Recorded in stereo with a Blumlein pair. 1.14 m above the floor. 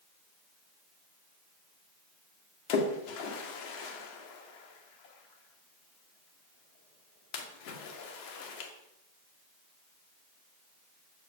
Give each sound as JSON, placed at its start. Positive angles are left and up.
{"t": 2.7, "sound": "a splash", "azimuth_deg": 40, "distance_m": 2.0}